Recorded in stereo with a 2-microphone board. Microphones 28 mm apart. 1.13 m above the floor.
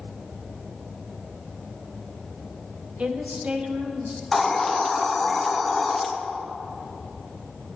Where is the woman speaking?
45° right (ahead or behind), 0.9 m; by 4.2 s 50° right (ahead or behind), 2.5 m.